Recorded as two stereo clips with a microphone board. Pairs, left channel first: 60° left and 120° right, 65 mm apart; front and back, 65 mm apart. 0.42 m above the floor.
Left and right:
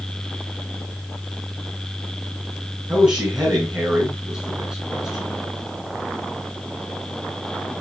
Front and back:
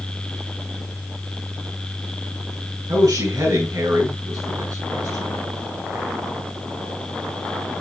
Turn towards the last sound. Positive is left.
turn(degrees=160)